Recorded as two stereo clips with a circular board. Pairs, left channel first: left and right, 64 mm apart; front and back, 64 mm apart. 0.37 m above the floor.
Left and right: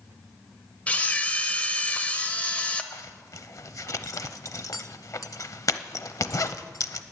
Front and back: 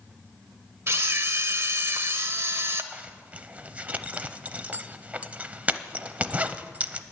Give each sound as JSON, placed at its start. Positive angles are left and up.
{"t": 0.9, "sound": "a camera shutter", "azimuth_deg": 150, "distance_m": 0.9}
{"t": 2.9, "sound": "a zipper", "azimuth_deg": 115, "distance_m": 0.6}